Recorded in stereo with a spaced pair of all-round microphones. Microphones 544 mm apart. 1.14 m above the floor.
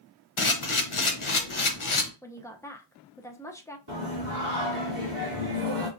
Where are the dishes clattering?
No dishes clattering in this recording.